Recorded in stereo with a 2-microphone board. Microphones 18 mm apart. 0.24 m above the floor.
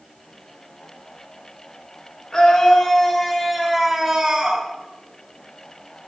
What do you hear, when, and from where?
2.3 s a scream: 45° left (ahead or behind), 3 m; by 4.7 s 35° right (ahead or behind), 2.5 m